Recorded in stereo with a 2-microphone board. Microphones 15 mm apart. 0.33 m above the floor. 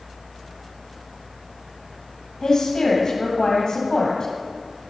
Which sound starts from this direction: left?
A woman speaking, at 2.4 s.